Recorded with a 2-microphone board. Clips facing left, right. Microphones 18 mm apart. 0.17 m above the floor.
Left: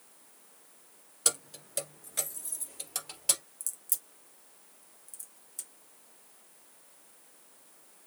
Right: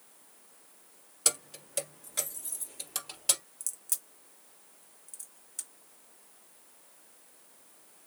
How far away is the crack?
About 1.8 m.